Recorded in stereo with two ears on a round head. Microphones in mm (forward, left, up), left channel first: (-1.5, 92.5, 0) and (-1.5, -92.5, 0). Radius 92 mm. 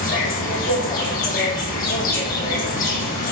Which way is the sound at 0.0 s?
40° left (ahead or behind).